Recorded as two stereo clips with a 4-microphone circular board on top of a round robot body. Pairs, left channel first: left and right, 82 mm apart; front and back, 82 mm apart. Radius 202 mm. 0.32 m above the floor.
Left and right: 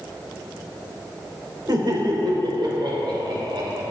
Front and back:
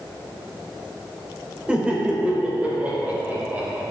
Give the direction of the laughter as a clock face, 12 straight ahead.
4 o'clock.